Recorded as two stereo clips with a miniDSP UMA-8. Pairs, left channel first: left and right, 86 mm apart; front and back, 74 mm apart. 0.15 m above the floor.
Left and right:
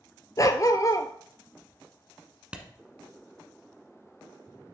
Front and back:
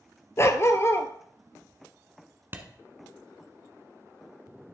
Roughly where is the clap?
Behind.